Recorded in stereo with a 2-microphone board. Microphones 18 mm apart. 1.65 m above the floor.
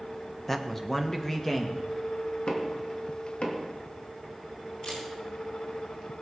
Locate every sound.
0.5 s a man speaking: 15° left (ahead or behind), 1.3 m; by 2.4 s 25° left (ahead or behind), 2.5 m
2.5 s knocking: 65° left (ahead or behind), 2 m
4.8 s a camera shutter: 60° left (ahead or behind), 5 m